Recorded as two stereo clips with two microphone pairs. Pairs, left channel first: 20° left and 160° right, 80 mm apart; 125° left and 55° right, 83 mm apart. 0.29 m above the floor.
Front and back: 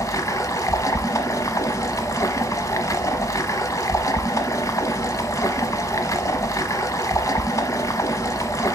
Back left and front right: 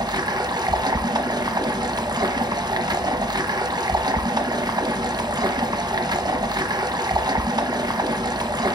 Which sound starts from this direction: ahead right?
Running water, at 0.0 s.